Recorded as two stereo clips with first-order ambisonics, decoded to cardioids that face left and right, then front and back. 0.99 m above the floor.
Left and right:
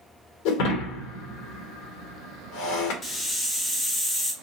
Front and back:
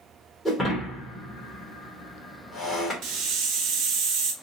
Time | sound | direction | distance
0.5 | breaking glass | 80° left | 1.6 m
3.0 | a hiss | 160° left | 1.2 m